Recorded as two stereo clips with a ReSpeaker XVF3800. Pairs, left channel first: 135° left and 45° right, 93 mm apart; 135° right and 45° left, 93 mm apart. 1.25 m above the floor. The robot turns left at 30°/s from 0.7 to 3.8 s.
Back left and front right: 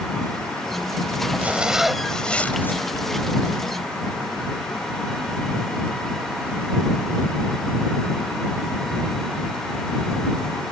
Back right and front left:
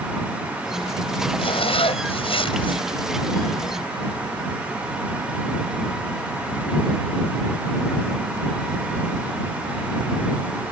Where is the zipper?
120° right; by 2.8 s 160° right.